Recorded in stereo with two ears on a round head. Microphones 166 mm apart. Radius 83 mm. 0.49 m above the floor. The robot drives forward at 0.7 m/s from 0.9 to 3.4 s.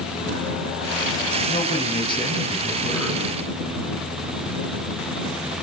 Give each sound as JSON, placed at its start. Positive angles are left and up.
{"t": 1.5, "sound": "a man speaking", "side_deg": 30, "distance_m": 4.5}